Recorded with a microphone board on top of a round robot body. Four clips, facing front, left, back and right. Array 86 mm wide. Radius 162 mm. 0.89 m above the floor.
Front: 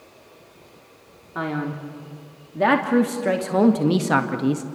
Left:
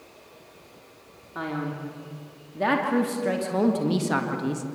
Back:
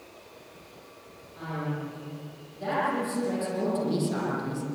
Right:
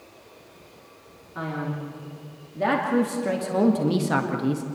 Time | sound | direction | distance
1.4 | a man speaking | 10° left | 3 m